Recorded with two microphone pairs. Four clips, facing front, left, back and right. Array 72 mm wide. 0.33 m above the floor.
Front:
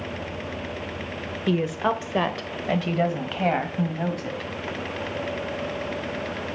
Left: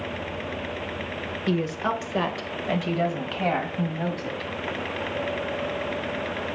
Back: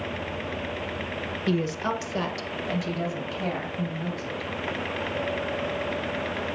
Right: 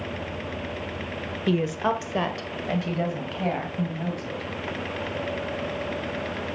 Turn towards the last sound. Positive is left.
turn(degrees=20)